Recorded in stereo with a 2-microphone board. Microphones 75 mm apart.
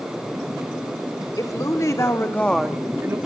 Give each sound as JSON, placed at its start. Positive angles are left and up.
{"t": 1.4, "sound": "a woman speaking", "side_deg": 55, "distance_m": 2.0}